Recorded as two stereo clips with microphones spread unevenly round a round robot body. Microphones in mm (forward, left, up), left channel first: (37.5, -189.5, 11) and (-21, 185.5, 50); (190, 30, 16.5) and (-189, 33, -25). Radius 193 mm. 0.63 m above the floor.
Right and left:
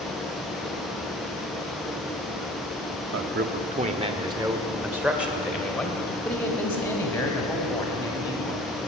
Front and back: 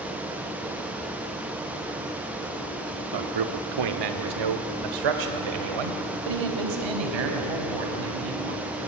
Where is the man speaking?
160° left, 1.1 m; by 8.9 s 160° right, 4.5 m.